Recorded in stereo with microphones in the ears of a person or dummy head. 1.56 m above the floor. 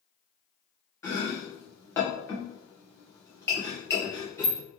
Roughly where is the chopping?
Centre.